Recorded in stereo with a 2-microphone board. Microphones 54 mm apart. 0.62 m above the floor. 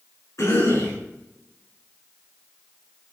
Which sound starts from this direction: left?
A cough, at 0.4 s.